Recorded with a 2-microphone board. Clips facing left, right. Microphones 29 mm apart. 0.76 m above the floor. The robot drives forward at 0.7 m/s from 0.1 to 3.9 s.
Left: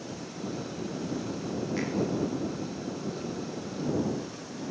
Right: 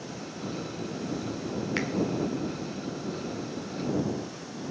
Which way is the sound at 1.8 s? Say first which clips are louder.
Right 3 dB; 80° right.